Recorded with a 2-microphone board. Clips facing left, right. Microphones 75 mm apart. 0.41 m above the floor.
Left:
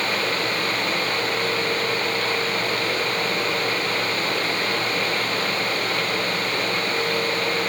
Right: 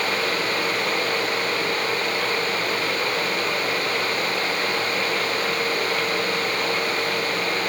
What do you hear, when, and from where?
Only background noise.